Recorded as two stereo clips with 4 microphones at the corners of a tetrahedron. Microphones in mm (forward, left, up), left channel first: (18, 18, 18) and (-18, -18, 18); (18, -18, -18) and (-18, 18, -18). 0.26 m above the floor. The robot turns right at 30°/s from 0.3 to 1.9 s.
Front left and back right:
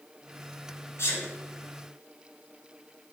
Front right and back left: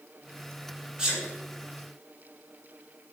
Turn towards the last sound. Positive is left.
turn(degrees=90)